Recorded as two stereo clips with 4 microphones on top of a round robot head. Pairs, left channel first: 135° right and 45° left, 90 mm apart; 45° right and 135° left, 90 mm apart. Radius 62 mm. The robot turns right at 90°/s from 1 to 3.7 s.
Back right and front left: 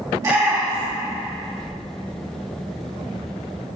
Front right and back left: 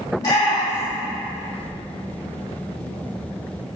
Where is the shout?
5° right, 1.8 m; by 1.1 s straight ahead, 1.8 m.